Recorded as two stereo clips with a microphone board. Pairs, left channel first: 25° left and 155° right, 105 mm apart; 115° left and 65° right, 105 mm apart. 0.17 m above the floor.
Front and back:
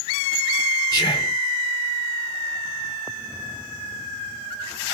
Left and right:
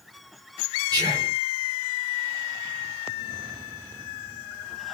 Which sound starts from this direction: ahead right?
Whispering, at 0.9 s.